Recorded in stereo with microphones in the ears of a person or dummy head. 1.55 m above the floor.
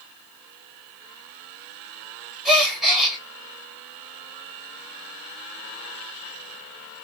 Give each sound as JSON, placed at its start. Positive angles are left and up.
{"t": 2.5, "sound": "a gasp", "side_deg": 0, "distance_m": 0.8}